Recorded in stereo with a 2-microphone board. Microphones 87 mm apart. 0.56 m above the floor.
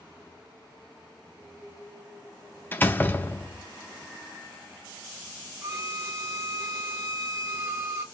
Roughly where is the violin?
Right.